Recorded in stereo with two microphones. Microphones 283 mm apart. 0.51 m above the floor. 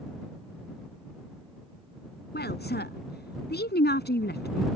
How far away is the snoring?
No snoring in this recording.